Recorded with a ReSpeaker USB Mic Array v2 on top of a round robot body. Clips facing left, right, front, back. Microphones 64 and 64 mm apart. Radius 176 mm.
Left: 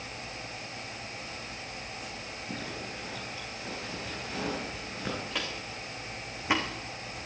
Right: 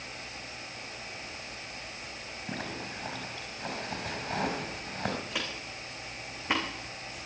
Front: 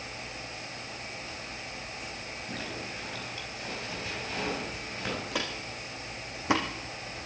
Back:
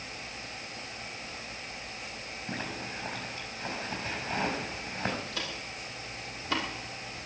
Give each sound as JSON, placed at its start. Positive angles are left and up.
{"t": 2.5, "sound": "a zipper", "azimuth_deg": -120, "distance_m": 5.0}
{"t": 5.3, "sound": "footsteps", "azimuth_deg": -5, "distance_m": 3.5}